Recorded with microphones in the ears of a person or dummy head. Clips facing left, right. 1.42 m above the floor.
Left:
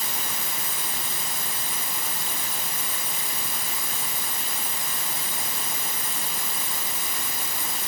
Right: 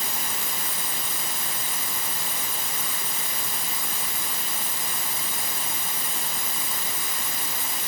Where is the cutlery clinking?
No cutlery clinking in this recording.